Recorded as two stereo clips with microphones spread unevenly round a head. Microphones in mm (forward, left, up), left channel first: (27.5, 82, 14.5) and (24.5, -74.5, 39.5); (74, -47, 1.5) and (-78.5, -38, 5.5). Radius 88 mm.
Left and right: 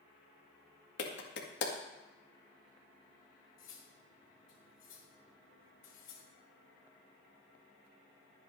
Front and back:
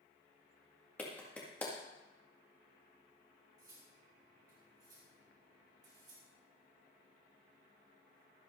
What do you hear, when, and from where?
1.0 s a clap: 80° left, 1.9 m
3.6 s cutlery clinking: 110° left, 2.5 m